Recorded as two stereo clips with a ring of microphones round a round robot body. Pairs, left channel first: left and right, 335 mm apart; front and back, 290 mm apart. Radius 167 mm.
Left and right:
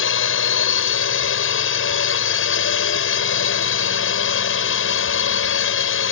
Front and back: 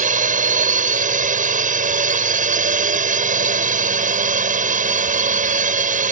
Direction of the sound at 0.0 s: 125° left.